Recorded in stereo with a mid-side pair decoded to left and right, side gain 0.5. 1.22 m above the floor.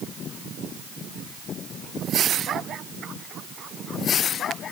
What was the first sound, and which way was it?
Only background noise.